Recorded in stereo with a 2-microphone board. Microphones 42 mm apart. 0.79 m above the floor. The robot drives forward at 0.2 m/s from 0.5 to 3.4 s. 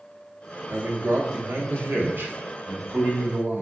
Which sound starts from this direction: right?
A man speaking, at 0.7 s.